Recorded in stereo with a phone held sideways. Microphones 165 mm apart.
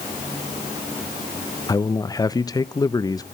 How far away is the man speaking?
About 0.5 m.